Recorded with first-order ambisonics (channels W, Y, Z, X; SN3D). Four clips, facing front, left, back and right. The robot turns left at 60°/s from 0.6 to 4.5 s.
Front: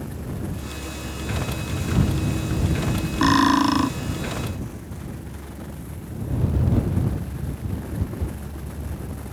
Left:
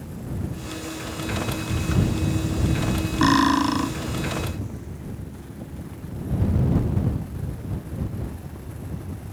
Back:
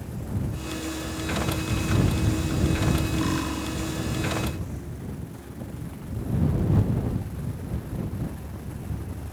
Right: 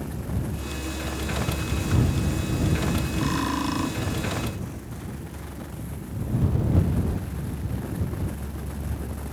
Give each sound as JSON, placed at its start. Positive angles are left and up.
{"t": 3.2, "sound": "cutlery clinking", "azimuth_deg": 50}